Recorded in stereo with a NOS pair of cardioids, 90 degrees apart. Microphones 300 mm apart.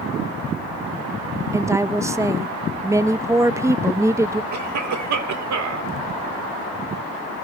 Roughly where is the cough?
Ahead right.